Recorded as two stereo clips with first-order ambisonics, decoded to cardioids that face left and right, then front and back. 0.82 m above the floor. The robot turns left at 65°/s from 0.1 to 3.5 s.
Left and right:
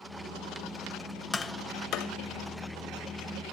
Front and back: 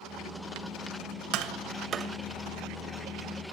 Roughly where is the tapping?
Behind.